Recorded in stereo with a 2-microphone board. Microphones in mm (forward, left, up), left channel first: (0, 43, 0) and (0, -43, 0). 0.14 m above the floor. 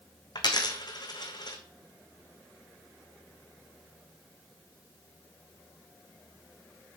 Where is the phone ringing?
No phone ringing in this recording.